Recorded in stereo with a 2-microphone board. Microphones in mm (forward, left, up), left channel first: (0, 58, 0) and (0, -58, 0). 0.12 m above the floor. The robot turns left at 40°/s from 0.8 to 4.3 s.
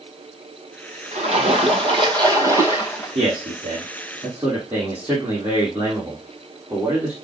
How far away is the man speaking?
About 4 m.